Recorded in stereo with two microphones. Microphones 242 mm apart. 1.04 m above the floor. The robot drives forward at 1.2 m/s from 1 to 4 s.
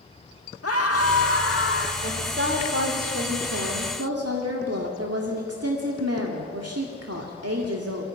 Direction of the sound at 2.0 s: 45° right (ahead or behind).